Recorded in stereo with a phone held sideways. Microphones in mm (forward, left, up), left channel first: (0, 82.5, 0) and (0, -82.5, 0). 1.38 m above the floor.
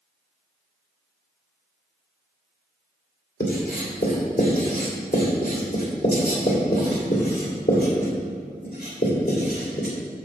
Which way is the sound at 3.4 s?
65° left (ahead or behind).